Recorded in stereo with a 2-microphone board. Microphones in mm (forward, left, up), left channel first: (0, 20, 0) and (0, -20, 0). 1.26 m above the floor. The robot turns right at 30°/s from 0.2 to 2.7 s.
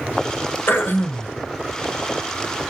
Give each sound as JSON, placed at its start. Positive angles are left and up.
{"t": 0.7, "sound": "throat clearing", "side_deg": 70, "distance_m": 0.9}